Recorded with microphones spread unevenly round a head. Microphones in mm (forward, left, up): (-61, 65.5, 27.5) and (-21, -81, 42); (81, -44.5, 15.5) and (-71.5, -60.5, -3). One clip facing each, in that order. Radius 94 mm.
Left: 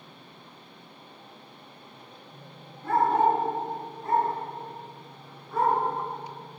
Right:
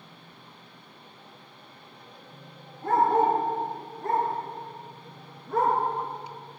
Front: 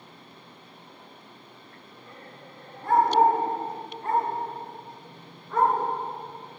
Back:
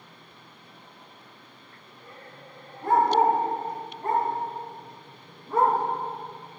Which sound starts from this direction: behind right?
A dog barking, at 2.8 s.